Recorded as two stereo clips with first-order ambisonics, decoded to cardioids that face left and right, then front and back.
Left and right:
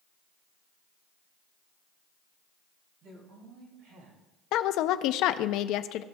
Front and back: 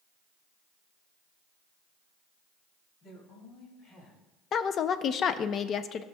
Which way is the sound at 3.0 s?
50° right.